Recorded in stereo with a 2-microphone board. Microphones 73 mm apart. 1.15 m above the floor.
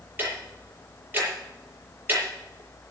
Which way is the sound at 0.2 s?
30° right (ahead or behind).